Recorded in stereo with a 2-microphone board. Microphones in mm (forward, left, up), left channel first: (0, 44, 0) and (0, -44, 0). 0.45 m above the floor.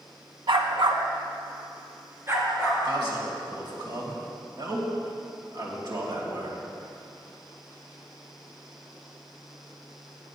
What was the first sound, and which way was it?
A dog barking, 80° right.